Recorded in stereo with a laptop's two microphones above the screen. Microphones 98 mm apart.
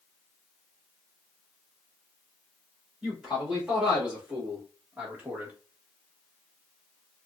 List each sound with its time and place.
3.0 s a man speaking: 5° right (ahead or behind), 2.5 m; by 5.5 s 20° right (ahead or behind), 1.1 m